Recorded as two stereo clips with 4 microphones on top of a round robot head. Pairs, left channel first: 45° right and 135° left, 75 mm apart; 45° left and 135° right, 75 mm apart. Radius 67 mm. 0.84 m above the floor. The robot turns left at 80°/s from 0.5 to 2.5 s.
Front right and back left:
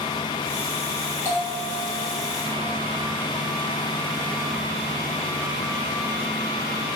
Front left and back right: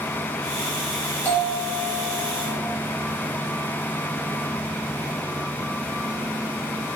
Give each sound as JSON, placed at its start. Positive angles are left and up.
{"t": 1.2, "sound": "a bell", "azimuth_deg": -10, "distance_m": 1.3}